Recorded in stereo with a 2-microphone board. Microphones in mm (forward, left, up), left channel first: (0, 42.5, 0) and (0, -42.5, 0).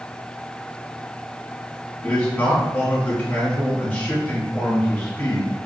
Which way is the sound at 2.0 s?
25° left (ahead or behind).